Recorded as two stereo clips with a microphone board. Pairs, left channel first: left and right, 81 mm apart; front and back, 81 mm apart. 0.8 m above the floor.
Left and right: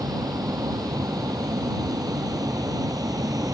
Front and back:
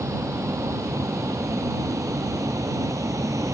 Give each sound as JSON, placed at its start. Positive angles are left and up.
{"t": 0.0, "sound": "a vehicle", "azimuth_deg": -130}